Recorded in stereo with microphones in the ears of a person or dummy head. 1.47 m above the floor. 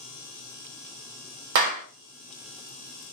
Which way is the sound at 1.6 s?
65° right (ahead or behind).